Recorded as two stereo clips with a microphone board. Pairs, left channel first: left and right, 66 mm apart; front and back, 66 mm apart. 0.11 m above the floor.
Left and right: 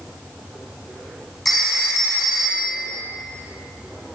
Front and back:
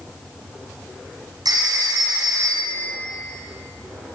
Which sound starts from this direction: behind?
A phone ringing, at 1.4 s.